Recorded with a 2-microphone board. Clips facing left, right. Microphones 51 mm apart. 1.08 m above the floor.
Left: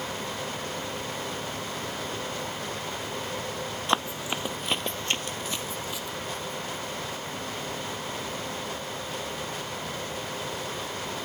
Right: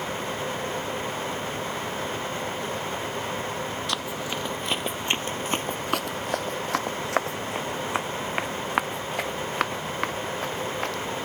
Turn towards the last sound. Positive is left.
turn(degrees=-70)  # may be behind; listen again after turning